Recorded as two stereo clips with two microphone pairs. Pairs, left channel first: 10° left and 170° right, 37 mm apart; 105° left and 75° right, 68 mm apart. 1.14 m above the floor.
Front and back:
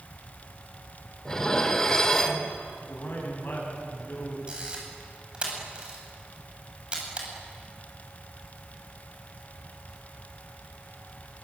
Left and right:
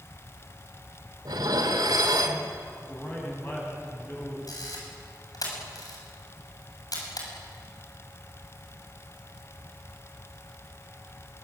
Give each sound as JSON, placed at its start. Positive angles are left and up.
{"t": 1.2, "sound": "dishes clattering", "azimuth_deg": -65, "distance_m": 3.0}
{"t": 2.8, "sound": "a man speaking", "azimuth_deg": 50, "distance_m": 9.0}
{"t": 4.5, "sound": "a camera shutter", "azimuth_deg": 130, "distance_m": 7.5}